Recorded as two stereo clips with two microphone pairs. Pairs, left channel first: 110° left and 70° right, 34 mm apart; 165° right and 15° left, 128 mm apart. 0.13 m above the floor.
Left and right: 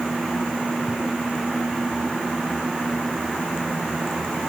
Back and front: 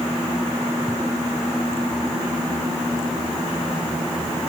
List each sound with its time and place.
Only background noise.